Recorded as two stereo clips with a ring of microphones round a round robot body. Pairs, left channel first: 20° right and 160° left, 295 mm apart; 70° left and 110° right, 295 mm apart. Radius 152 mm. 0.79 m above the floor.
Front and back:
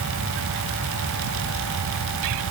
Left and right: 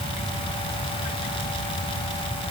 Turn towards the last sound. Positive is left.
No sound to turn to.